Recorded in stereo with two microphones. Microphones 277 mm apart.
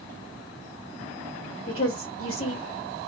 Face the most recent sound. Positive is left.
turn(degrees=50)  # may be behind; listen again after turning